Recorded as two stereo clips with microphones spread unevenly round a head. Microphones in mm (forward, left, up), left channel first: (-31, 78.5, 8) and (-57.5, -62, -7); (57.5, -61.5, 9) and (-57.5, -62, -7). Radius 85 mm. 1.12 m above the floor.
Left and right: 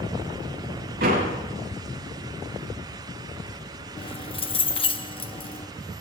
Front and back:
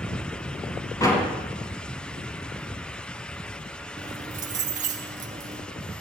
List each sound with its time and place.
1.0 s a door slam: 60° right, 7 m
4.0 s keys jangling: 130° left, 1.0 m